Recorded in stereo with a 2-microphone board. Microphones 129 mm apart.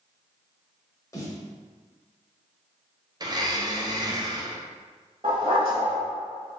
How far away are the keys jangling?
I don't hear keys jangling.